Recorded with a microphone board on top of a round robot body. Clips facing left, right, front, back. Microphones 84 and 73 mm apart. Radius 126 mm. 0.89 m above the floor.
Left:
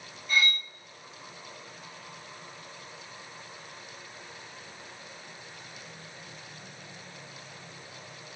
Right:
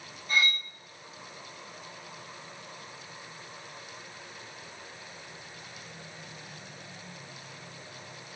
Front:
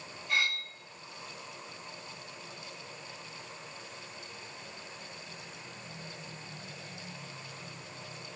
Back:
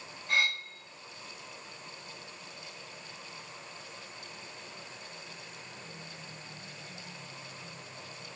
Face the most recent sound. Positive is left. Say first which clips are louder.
# even, back 2 dB
turn(degrees=-140)